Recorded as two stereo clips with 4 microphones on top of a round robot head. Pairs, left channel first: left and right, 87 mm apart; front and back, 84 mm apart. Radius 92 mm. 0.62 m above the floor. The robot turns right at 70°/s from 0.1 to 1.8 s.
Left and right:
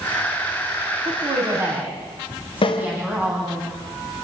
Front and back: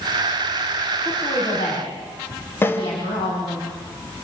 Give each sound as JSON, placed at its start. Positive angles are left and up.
{"t": 1.1, "sound": "a woman speaking", "azimuth_deg": -70, "distance_m": 5.5}
{"t": 2.6, "sound": "a snare drum", "azimuth_deg": 65, "distance_m": 1.1}